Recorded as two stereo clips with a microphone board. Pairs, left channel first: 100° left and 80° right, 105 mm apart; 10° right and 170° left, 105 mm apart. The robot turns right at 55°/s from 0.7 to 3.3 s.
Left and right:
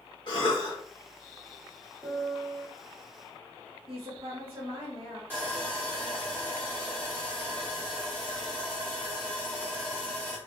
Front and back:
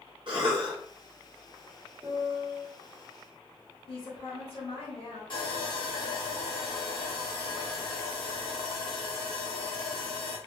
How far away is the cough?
About 0.6 m.